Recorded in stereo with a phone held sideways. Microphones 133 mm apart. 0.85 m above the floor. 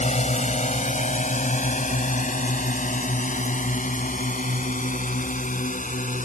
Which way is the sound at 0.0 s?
60° left (ahead or behind).